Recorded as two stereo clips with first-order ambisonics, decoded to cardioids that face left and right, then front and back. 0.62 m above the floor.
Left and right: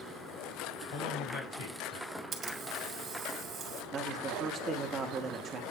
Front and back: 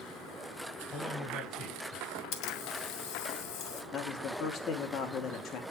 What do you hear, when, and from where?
0.9 s a man speaking: 80° left, 5.5 m
2.3 s a camera shutter: 20° right, 1.4 m
3.9 s a man speaking: 30° right, 1.3 m